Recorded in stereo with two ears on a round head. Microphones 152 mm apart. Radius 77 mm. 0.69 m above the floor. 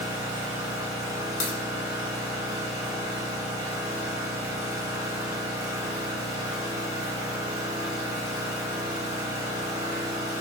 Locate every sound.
0.0 s an engine running: 20° right (ahead or behind), 1.6 m
1.4 s a crack: 40° left (ahead or behind), 1.4 m